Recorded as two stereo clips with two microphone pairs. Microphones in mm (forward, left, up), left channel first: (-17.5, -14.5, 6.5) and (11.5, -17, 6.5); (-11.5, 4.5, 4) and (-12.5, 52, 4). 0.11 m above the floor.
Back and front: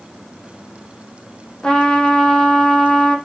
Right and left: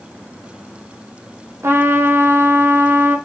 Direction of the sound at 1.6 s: 115° left.